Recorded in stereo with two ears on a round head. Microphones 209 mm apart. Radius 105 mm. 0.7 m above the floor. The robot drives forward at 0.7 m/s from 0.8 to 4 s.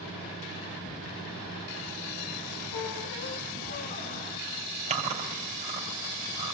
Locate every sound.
2.7 s a squeak: 65° left (ahead or behind), 1.4 m; by 4.3 s 40° left (ahead or behind), 2.0 m
4.9 s chewing: 30° right (ahead or behind), 3 m